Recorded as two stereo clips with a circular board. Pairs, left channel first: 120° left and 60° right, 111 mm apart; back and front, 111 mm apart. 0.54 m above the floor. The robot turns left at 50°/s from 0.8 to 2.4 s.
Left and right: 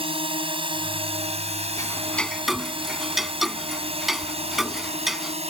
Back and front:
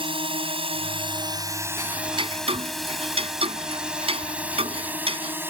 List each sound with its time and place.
0.0 s a drone: 30° right; by 5.5 s 70° right
1.8 s ticking: 60° left; by 5.4 s 30° left